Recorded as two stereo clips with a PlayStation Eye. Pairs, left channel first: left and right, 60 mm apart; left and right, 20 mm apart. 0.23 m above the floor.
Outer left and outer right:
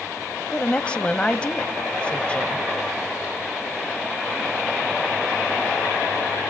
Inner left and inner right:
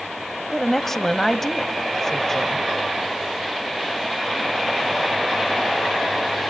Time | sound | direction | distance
0.5 | a woman speaking | 20° left (ahead or behind) | 1.0 m